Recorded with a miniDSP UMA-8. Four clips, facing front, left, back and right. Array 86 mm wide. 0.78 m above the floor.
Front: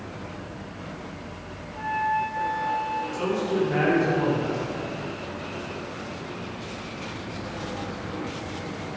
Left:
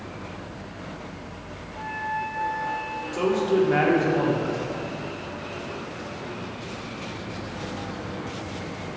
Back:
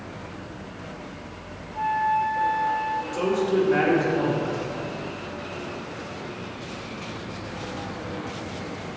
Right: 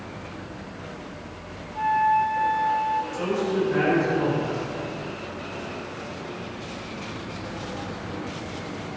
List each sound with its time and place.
1.8 s a flute: 120° right, 0.5 m
3.1 s a man speaking: 105° left, 1.6 m